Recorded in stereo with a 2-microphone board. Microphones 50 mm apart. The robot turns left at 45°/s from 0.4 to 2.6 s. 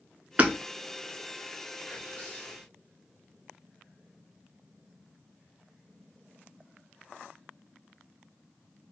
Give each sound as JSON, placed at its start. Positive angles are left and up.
{"t": 0.4, "sound": "hammering", "side_deg": -30, "distance_m": 0.6}
{"t": 1.9, "sound": "whispering", "azimuth_deg": 90, "distance_m": 1.6}